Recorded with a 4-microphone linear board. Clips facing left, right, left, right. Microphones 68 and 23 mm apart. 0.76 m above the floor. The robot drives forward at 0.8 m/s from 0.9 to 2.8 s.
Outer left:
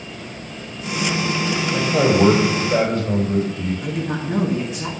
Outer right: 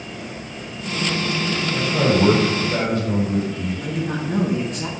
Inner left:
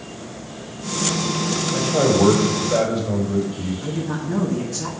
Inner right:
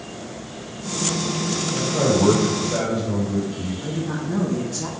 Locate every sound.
1.7 s a man speaking: 45° left (ahead or behind), 3 m; by 3.7 s 35° left (ahead or behind), 3.5 m
3.8 s a woman speaking: 5° left (ahead or behind), 1.1 m